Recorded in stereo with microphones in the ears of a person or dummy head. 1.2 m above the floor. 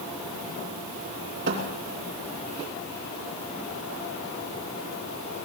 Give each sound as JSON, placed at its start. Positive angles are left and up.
{"t": 1.5, "sound": "a thud", "side_deg": -60, "distance_m": 3.0}